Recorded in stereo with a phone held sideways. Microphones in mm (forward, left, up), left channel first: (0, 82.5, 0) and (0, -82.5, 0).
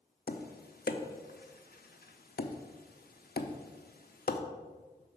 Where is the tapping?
65° left (ahead or behind), 0.6 m.